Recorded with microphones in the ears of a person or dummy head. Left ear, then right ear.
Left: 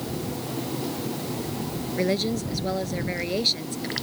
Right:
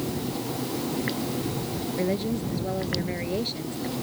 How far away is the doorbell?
I don't hear a doorbell.